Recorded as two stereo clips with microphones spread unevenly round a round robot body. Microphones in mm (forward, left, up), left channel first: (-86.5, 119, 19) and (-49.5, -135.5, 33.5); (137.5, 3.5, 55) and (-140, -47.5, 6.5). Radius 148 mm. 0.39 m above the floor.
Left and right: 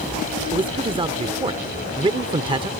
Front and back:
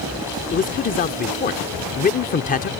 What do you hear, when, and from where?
0.5 s a man speaking: 30° right